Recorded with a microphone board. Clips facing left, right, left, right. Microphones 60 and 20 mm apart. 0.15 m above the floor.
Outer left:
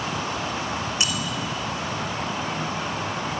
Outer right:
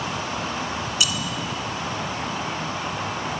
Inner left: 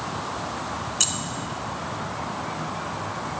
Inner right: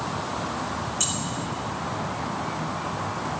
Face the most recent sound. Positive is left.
turn(degrees=35)  # may be behind; listen again after turning